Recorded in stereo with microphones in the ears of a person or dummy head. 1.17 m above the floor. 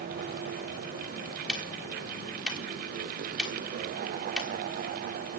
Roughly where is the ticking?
Centre.